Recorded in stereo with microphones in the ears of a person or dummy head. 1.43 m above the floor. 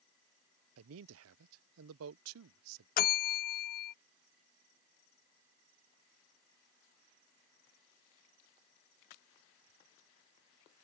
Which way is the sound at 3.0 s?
50° left (ahead or behind).